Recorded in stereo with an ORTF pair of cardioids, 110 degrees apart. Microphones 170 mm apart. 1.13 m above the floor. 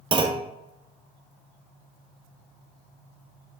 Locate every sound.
0.1 s a clunk: 30° right, 0.9 m